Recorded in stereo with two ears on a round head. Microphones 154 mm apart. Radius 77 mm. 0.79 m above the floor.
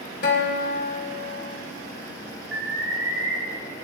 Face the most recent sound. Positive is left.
turn(degrees=-80)